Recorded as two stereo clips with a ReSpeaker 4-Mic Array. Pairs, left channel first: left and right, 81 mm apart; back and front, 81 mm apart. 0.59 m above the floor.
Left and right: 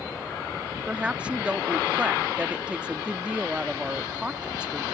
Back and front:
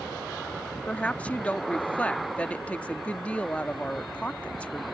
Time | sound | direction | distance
0.9 | a woman speaking | 140° right | ?